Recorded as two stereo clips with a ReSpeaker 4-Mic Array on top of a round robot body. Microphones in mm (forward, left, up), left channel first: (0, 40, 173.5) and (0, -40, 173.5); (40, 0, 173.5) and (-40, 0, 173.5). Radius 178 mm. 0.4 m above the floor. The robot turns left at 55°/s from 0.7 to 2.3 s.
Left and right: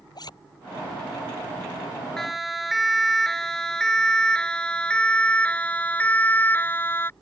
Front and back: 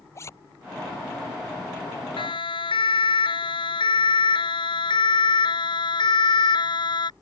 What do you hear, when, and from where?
0.1 s a zipper: 55° left
2.2 s a siren: 5° left; by 7.1 s 25° left